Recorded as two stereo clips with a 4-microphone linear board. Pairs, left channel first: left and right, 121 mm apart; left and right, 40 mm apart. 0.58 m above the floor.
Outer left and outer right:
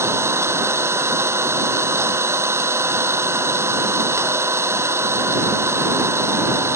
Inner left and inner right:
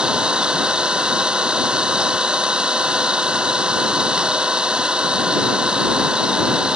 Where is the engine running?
20° right (ahead or behind).